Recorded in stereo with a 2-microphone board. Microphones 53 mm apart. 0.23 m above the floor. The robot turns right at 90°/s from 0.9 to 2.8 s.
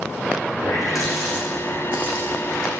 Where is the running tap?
70° left (ahead or behind), 7 m; by 2.8 s 80° right, 7 m.